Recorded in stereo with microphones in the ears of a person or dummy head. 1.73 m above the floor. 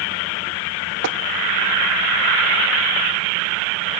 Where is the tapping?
80° right, 1.1 m.